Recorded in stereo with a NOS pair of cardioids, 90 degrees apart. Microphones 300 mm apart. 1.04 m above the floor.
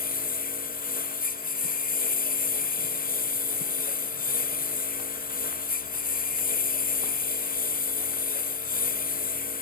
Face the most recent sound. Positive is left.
turn(degrees=30)